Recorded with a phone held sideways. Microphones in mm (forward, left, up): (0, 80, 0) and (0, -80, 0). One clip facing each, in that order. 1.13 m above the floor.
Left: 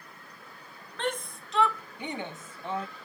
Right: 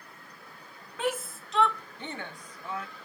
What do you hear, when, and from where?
1.0 s a shout: 5° right (ahead or behind); by 2.9 s 30° left (ahead or behind)